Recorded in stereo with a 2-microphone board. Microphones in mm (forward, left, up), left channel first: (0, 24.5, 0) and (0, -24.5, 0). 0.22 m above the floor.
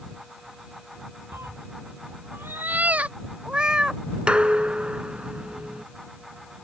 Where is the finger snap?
I don't hear a finger snap.